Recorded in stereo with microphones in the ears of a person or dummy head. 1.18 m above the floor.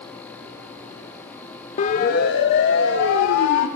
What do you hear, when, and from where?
1.8 s a siren: 35° left (ahead or behind), 2 m; by 3.7 s 70° left (ahead or behind), 3.5 m